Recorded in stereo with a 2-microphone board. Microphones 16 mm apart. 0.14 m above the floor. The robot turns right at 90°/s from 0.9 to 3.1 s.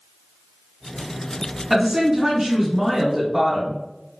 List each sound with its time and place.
1.7 s a woman speaking: 5° right (ahead or behind), 1.1 m; by 3.8 s 15° right (ahead or behind), 1.1 m